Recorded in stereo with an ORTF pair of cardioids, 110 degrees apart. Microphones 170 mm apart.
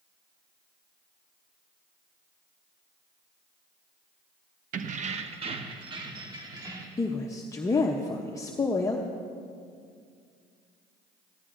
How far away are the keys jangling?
About 0.6 m.